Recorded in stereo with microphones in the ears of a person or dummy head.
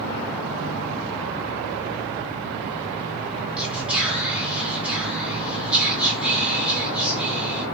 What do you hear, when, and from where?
3.6 s whispering: 10° right (ahead or behind), 4.5 m